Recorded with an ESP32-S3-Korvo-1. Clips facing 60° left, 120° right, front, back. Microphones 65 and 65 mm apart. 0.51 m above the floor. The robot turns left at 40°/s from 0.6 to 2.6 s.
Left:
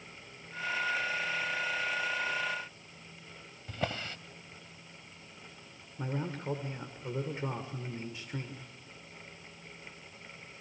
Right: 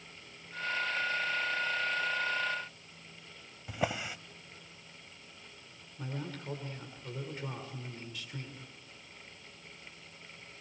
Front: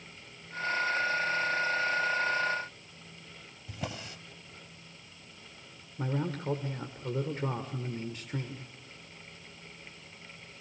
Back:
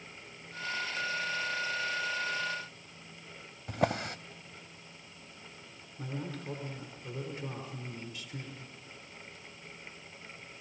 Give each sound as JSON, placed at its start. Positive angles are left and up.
{"t": 3.7, "sound": "a drawer", "azimuth_deg": 165, "distance_m": 0.7}
{"t": 6.0, "sound": "a man speaking", "azimuth_deg": 10, "distance_m": 2.0}